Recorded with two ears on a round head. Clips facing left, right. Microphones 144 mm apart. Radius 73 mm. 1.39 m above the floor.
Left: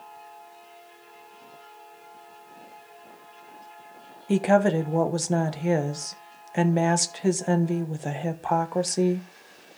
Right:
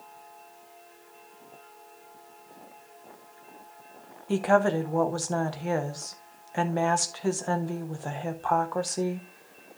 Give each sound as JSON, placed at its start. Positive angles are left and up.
{"t": 4.3, "sound": "a woman speaking", "side_deg": 20, "distance_m": 0.9}